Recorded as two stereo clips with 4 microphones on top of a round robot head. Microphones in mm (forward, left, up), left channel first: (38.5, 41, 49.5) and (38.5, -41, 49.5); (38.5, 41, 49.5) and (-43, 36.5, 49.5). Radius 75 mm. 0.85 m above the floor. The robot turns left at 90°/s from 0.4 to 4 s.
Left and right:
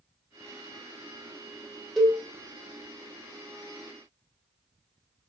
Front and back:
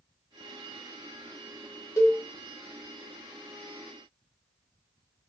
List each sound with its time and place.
2.0 s a cowbell: straight ahead, 0.8 m; by 2.2 s 20° right, 0.8 m